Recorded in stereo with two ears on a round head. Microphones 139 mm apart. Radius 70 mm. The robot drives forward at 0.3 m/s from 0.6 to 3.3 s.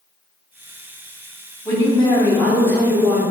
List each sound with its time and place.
1.6 s a woman speaking: 15° left (ahead or behind), 0.9 m; by 3.2 s 10° left (ahead or behind), 1.3 m